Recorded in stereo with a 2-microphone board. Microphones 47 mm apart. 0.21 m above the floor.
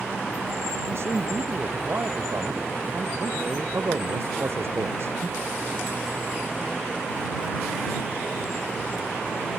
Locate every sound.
0.9 s a man speaking: 60° right (ahead or behind)